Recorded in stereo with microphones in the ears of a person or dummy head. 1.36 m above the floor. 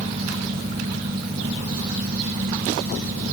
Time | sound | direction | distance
0.0 | a fan | 30° right (ahead or behind) | ?